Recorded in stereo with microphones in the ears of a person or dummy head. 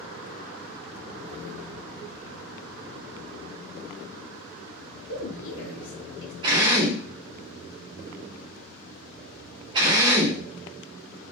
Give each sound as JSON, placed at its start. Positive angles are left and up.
{"t": 5.1, "sound": "a woman speaking", "side_deg": 70, "distance_m": 0.9}
{"t": 6.4, "sound": "a drill", "side_deg": -25, "distance_m": 1.3}